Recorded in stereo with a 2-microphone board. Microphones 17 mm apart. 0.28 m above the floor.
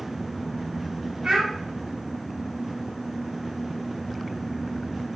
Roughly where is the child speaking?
Right.